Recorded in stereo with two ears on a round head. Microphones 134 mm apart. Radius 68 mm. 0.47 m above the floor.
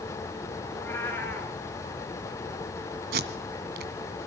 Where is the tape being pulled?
65° right (ahead or behind), 1.7 m.